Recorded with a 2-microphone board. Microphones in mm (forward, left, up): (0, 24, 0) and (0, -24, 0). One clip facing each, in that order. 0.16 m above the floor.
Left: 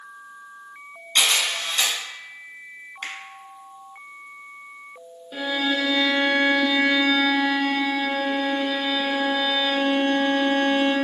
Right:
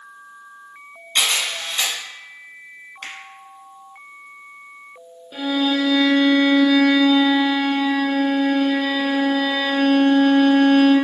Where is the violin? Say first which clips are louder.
Right 4 dB; 5° left (ahead or behind), 1.0 m.